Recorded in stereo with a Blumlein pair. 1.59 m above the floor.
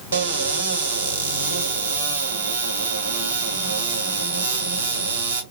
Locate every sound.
0.1 s a cupboard door: 65° right, 1.2 m